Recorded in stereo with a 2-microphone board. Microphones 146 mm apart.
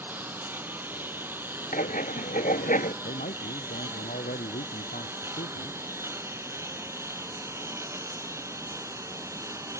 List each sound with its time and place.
0.0 s a lawn mower: 15° right (ahead or behind); by 9.8 s 20° right (ahead or behind)
1.7 s writing: 65° left (ahead or behind)
3.0 s a man speaking: 75° left (ahead or behind)